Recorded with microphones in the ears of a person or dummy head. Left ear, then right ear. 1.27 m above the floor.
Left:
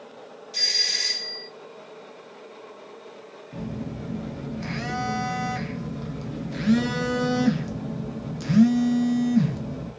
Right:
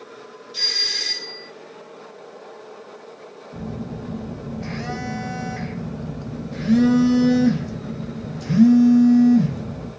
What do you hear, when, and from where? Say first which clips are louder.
0.5 s a doorbell: right 1 dB; 65° left (ahead or behind), 2.5 m
3.5 s a phone buzzing: right 2 dB; 40° left (ahead or behind), 0.9 m